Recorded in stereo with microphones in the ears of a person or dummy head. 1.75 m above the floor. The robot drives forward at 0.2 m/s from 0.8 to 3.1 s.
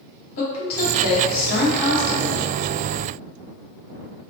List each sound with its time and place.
0.4 s a woman speaking: 55° left (ahead or behind), 1.6 m; by 2.5 s 65° left (ahead or behind), 1.5 m